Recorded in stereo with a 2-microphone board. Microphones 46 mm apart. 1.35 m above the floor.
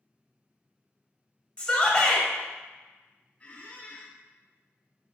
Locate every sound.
1.6 s a shout: 25° left (ahead or behind), 1.1 m
3.4 s a squeak: 30° left (ahead or behind), 0.5 m